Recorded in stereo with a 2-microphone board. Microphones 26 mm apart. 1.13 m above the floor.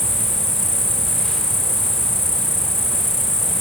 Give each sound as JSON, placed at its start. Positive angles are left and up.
{"t": 0.0, "sound": "an insect", "side_deg": 15}